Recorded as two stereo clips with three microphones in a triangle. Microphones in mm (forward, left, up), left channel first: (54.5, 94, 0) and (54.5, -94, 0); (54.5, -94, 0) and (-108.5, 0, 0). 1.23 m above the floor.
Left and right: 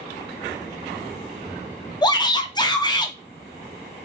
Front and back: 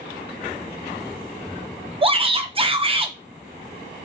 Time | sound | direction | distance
2.0 | a shout | 130° left | 0.5 m